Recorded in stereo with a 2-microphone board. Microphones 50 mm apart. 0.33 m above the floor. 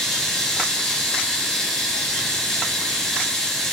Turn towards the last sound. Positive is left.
turn(degrees=10)  # may be behind; listen again after turning